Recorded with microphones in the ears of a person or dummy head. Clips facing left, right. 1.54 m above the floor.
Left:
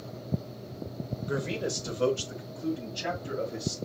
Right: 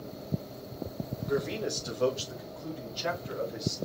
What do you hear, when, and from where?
1.3 s a man speaking: 40° left (ahead or behind), 1.9 m